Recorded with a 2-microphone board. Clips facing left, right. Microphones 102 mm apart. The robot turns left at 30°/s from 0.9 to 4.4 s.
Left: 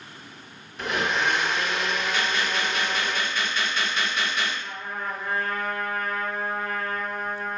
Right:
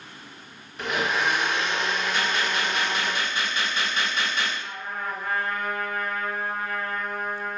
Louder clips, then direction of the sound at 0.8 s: Even; straight ahead.